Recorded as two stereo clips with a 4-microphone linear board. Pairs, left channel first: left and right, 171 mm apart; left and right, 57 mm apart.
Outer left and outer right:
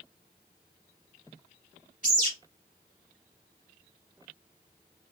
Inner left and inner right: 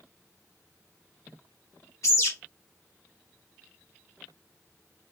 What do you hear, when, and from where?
2.0 s a bird: 50° left (ahead or behind), 1.8 m